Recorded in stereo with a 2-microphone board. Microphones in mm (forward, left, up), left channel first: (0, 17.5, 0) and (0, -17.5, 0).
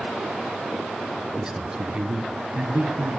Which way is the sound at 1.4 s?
15° right (ahead or behind).